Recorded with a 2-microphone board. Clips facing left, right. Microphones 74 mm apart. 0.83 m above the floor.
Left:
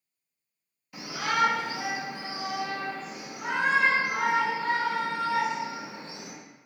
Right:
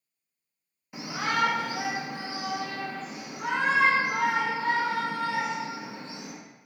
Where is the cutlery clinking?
No cutlery clinking in this recording.